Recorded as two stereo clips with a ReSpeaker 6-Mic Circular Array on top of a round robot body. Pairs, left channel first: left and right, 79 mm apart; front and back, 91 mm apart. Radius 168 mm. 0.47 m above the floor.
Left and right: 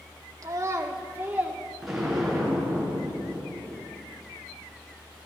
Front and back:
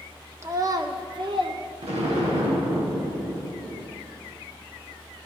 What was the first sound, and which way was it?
A child speaking, 125° right.